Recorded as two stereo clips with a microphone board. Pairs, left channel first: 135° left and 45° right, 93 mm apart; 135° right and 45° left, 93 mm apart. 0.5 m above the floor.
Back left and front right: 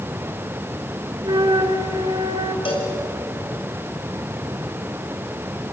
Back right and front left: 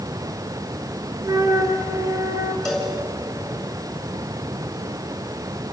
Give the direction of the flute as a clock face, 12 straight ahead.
12 o'clock.